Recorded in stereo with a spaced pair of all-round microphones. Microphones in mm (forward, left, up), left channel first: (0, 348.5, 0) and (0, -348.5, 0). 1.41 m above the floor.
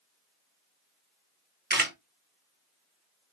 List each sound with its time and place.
1.7 s a camera shutter: 15° right (ahead or behind), 0.6 m